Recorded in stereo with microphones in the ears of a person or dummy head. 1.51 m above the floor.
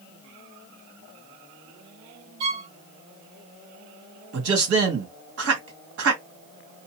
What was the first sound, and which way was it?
A violin, 25° right (ahead or behind).